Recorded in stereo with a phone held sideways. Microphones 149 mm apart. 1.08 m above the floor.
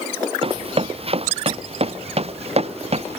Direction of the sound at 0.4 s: 40° right (ahead or behind).